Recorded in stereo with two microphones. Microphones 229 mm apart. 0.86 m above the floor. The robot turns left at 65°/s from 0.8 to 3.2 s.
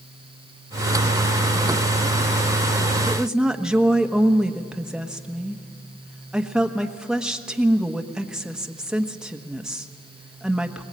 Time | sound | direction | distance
3.1 | a woman speaking | 5° left (ahead or behind) | 1.1 m